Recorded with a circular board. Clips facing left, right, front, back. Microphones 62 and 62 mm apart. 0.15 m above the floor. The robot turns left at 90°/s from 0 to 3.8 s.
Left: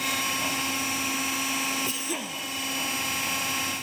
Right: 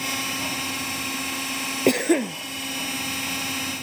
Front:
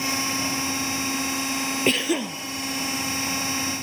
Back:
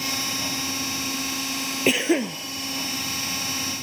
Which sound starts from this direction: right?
A cough, at 1.9 s.